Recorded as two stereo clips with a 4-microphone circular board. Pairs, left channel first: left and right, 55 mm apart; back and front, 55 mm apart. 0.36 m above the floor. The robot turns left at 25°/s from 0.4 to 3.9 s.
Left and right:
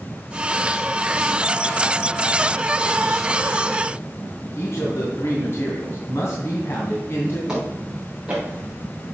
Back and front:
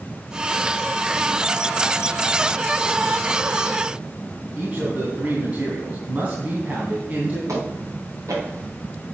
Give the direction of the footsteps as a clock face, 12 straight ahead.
1 o'clock.